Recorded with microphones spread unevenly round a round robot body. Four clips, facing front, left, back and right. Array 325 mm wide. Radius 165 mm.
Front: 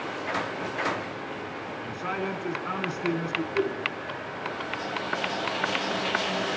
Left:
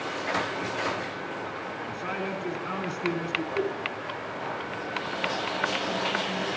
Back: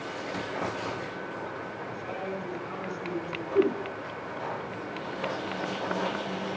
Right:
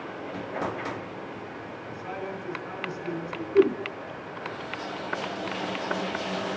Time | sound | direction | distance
1.8 | a man speaking | 30° left | 5.5 m
3.5 | a whoosh | 120° right | 1.5 m